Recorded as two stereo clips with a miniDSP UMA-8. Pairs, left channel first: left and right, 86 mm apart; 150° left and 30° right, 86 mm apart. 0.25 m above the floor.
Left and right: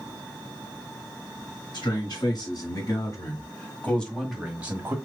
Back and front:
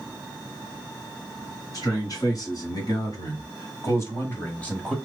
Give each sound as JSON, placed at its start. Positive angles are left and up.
{"t": 1.7, "sound": "a man speaking", "azimuth_deg": 115, "distance_m": 2.5}